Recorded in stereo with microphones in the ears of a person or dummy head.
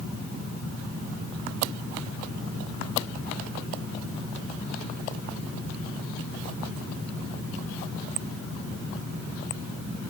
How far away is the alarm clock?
No alarm clock in this recording.